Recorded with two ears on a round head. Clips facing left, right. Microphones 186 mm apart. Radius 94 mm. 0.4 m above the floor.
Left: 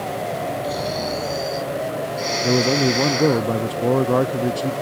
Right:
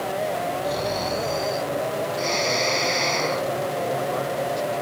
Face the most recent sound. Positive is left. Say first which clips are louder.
# left 7 dB
turn(degrees=75)  # may be behind; listen again after turning